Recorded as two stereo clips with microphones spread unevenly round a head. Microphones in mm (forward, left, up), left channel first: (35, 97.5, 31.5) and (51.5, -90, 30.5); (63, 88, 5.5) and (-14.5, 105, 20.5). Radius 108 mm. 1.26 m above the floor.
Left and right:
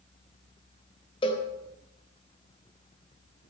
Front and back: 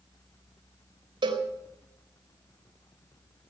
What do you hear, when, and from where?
1.2 s a cowbell: 165° left, 3.5 m